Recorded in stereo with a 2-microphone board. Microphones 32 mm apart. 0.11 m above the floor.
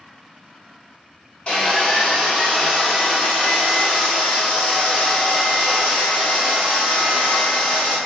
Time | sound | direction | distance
1.5 | sawing | 35° left (ahead or behind) | 1.4 m